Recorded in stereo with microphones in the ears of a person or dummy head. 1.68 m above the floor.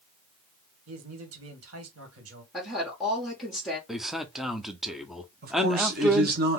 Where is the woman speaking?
Centre (ahead or behind), 1.3 m.